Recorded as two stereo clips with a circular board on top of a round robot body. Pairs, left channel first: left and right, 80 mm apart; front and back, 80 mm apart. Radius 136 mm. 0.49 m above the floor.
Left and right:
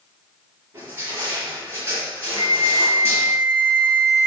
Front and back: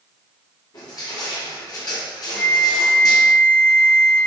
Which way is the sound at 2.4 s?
75° right.